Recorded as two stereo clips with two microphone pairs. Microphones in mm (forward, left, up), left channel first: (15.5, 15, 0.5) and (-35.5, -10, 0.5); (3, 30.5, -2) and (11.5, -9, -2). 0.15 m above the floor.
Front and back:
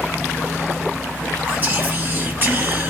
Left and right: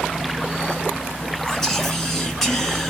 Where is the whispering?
Straight behind, 1.5 m.